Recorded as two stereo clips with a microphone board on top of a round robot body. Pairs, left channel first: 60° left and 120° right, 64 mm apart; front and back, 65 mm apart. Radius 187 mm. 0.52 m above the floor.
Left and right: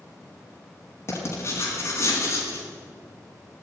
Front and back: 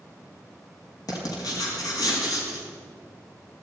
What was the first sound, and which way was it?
Writing, 15° left.